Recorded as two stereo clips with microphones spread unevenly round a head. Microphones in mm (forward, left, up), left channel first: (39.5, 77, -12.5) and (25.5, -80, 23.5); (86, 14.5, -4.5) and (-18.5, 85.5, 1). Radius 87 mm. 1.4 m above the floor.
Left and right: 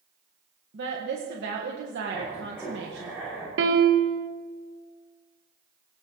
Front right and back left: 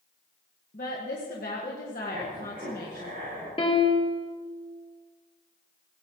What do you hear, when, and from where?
0.7 s a woman speaking: 80° right, 1.7 m
2.1 s writing: 175° left, 7 m
3.6 s a piano: 100° right, 1.4 m